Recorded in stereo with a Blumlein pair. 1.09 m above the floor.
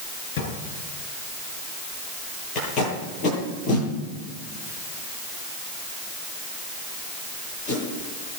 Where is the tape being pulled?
25° left, 8.5 m.